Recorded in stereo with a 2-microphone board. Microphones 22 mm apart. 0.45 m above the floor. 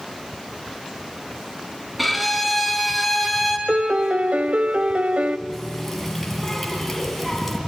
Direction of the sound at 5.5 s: 5° left (ahead or behind).